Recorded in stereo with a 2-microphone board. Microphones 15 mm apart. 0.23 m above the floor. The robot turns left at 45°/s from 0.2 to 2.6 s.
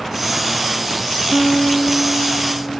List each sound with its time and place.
1.3 s a guitar: 45° left, 1.1 m; by 2.8 s 15° right, 1.1 m